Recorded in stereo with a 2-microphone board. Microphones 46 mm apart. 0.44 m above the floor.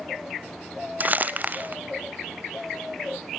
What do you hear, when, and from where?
1.0 s crumpling: 40° right (ahead or behind), 0.8 m